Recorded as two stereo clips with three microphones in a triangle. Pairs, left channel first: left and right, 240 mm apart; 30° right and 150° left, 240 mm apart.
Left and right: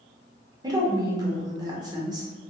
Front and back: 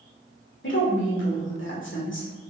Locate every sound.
0.6 s a woman speaking: 20° right, 1.5 m